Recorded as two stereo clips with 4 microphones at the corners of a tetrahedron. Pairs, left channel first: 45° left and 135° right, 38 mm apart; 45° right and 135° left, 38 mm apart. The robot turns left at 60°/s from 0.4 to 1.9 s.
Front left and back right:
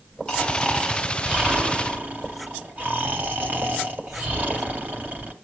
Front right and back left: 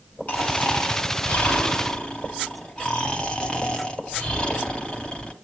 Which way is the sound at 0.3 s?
15° right.